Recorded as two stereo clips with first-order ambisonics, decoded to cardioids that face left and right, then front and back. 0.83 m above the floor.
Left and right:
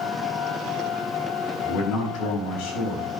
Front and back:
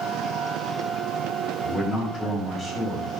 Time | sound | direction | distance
1.6 | a man speaking | 65° left | 4.5 m